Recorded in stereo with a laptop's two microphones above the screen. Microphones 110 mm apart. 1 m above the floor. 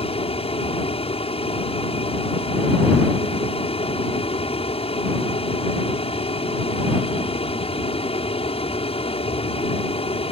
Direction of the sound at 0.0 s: 60° left (ahead or behind).